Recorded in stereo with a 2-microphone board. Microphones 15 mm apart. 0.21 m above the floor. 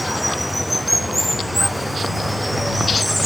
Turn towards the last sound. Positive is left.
turn(degrees=-5)  # may be behind; listen again after turning